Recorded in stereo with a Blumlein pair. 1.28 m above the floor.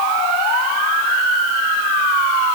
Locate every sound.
Only background noise.